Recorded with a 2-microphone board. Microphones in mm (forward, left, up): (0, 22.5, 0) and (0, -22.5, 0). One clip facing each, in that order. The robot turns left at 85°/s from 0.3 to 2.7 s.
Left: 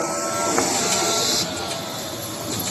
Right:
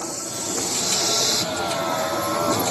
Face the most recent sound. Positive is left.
turn(degrees=-75)  # may be behind; listen again after turning